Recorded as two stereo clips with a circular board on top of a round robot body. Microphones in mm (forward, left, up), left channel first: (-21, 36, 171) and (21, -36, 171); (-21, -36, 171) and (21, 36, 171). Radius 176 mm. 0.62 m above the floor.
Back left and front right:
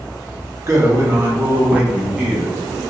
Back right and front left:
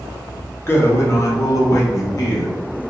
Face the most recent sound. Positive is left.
turn(degrees=-150)